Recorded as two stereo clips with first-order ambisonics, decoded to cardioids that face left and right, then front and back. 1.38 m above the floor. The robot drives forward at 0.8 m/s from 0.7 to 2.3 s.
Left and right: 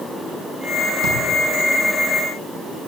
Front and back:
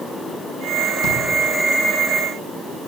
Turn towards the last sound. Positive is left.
turn(degrees=-65)